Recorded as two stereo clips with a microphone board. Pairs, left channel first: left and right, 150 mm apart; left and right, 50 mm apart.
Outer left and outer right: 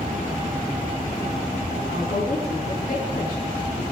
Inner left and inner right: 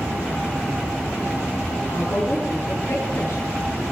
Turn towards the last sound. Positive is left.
turn(degrees=80)